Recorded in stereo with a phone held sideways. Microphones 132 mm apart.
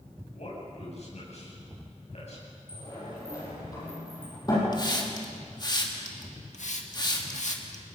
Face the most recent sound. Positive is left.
turn(degrees=70)  # may be behind; listen again after turning